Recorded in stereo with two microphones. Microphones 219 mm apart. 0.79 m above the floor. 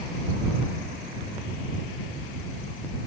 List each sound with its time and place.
Only background noise.